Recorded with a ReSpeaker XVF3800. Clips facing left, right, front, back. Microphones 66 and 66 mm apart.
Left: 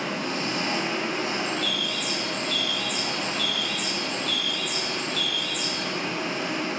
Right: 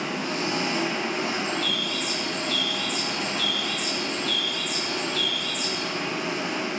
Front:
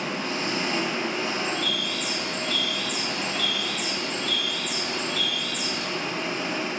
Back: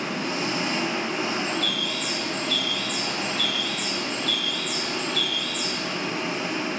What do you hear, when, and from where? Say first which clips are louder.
0.0 s an engine running: right 1 dB, back 1 dB; 100° right, 0.8 m
1.4 s a bird: even, back 1 dB; 75° left, 1.8 m